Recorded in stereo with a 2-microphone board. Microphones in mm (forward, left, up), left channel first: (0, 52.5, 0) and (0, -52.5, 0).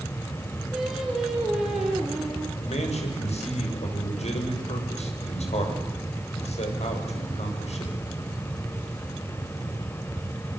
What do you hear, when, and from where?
0.7 s singing: 5° right (ahead or behind), 5 m
2.6 s a man speaking: 75° left (ahead or behind), 7 m